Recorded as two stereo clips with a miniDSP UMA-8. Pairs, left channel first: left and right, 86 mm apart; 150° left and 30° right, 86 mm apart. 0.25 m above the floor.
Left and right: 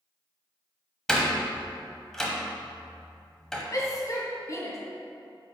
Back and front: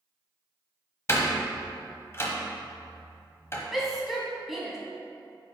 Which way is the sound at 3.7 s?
55° left.